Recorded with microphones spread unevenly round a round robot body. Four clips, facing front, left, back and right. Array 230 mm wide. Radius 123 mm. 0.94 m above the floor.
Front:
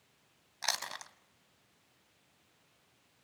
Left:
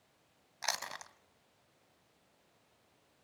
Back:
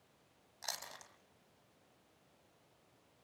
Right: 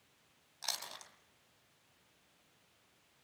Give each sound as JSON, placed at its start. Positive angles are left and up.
{"t": 0.6, "sound": "chewing", "azimuth_deg": 25, "distance_m": 1.4}